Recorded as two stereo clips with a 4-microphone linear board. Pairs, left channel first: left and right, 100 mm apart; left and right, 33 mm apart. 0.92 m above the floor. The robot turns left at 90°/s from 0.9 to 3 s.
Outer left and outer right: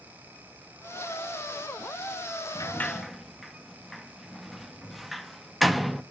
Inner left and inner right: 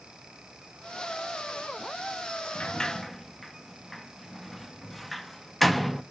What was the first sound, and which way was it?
A sliding door, 40° left (ahead or behind).